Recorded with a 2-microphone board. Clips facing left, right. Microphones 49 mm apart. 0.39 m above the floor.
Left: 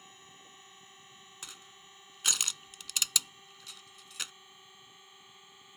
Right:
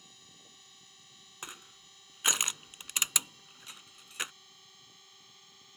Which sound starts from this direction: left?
A drone, at 0.0 s.